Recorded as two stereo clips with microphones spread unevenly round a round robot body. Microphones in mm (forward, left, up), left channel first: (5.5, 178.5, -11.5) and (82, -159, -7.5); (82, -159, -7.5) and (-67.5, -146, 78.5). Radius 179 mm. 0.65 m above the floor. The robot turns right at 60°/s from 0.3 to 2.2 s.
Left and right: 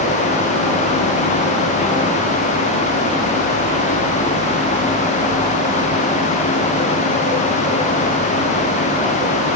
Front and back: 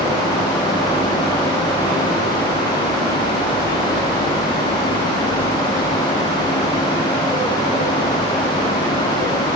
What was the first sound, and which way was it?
Only background noise.